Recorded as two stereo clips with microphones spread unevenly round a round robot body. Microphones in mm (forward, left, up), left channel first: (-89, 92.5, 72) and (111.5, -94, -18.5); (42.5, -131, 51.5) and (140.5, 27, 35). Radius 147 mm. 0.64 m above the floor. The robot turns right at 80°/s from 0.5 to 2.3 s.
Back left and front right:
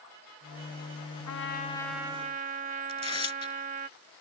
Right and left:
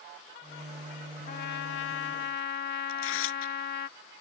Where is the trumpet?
Straight behind; by 3.9 s 95° right.